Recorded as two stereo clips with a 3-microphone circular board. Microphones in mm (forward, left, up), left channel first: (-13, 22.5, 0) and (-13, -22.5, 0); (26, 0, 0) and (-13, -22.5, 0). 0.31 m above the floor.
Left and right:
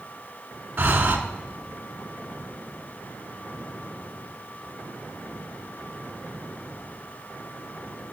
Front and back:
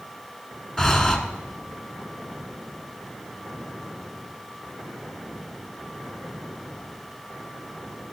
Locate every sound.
0.8 s breathing: 50° right, 0.7 m